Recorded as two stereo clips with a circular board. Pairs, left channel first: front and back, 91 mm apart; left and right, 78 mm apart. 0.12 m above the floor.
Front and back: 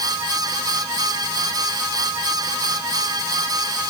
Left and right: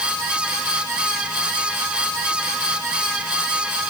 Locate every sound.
Only background noise.